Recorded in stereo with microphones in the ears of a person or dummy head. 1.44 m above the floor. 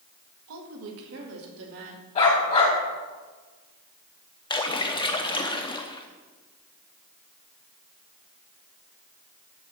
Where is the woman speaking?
80° right, 1.7 m; by 2.0 s 75° right (ahead or behind), 2.5 m.